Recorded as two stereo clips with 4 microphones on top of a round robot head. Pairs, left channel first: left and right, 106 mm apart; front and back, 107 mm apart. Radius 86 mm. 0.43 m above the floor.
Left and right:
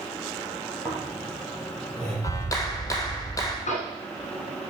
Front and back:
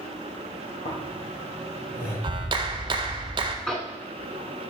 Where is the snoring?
10° left, 2.5 m.